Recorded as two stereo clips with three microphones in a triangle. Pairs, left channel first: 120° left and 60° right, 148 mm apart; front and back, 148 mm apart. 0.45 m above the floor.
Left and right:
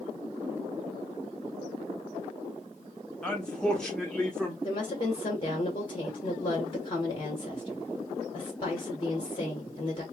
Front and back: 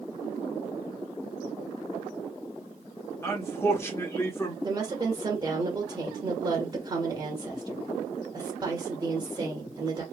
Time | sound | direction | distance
3.2 | a man speaking | 45° left | 1.0 m
4.6 | a woman speaking | 145° left | 1.3 m